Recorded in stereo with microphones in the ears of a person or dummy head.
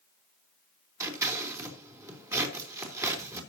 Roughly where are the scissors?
Centre.